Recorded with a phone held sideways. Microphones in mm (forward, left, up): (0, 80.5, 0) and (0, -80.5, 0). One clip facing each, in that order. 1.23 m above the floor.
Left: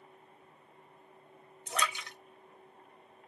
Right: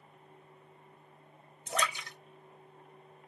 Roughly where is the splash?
Right.